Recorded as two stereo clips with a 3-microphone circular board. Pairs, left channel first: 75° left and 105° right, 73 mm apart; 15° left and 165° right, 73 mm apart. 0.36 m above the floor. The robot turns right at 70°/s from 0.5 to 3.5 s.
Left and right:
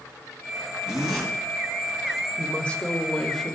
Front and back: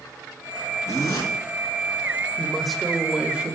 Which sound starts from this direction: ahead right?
A zipper, at 0.9 s.